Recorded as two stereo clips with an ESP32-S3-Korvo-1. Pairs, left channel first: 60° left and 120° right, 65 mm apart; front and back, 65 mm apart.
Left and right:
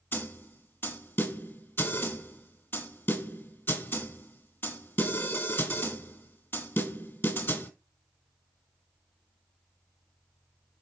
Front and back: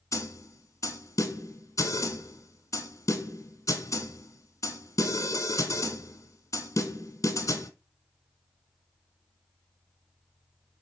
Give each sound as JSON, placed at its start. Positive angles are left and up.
{"t": 0.1, "sound": "a snare drum", "azimuth_deg": 15, "distance_m": 1.4}